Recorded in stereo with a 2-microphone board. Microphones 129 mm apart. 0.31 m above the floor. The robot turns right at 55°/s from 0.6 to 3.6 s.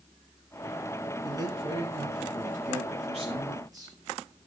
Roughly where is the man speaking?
Behind right.